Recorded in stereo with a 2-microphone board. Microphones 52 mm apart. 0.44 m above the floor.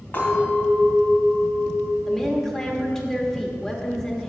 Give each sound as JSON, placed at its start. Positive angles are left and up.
{"t": 0.1, "sound": "a clink", "side_deg": 35, "distance_m": 2.5}
{"t": 2.0, "sound": "a woman speaking", "side_deg": 10, "distance_m": 0.9}